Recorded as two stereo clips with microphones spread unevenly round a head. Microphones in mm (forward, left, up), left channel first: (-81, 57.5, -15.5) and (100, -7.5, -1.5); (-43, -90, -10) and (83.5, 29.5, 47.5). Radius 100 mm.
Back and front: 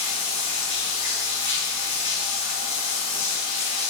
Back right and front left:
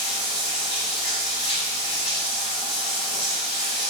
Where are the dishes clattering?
No dishes clattering in this recording.